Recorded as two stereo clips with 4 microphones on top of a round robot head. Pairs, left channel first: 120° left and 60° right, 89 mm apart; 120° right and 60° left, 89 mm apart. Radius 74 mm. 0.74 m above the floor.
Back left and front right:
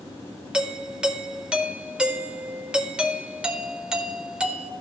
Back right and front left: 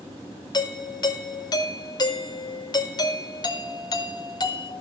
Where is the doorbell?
135° right, 1.3 m.